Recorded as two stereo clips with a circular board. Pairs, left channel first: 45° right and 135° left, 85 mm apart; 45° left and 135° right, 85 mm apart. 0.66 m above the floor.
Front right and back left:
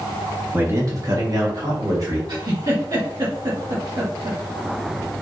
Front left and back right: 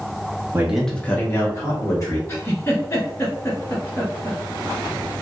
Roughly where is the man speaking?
Behind.